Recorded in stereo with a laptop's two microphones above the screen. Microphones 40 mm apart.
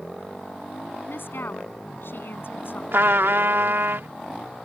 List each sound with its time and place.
1.1 s a woman speaking: 70° left (ahead or behind); by 2.8 s 65° left (ahead or behind)
2.9 s a trumpet: 75° right (ahead or behind)